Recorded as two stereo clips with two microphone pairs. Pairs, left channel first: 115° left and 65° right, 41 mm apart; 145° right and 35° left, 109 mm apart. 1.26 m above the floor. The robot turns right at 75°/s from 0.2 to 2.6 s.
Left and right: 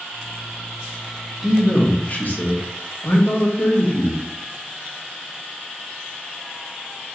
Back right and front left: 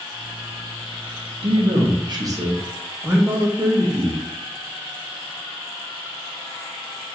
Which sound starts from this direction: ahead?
A man speaking, at 1.4 s.